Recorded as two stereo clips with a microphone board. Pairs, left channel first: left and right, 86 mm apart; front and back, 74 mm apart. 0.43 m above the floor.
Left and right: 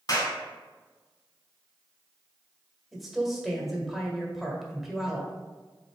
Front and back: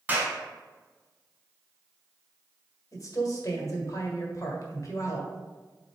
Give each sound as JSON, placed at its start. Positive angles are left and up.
{"t": 0.1, "sound": "a clap", "azimuth_deg": 115, "distance_m": 1.8}
{"t": 2.9, "sound": "a woman speaking", "azimuth_deg": 0, "distance_m": 1.7}